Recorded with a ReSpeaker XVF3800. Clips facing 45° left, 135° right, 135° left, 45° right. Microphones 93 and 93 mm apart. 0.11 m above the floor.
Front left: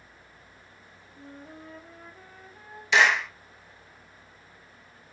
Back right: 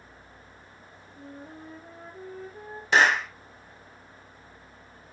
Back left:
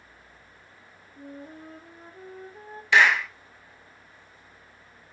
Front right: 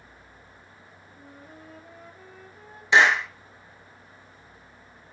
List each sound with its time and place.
1.2 s a flute: 175° left, 1.6 m
2.9 s a clap: 105° right, 1.5 m